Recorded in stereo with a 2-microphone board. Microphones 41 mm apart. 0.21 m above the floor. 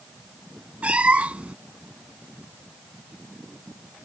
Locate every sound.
0.8 s a cat meowing: 30° right (ahead or behind)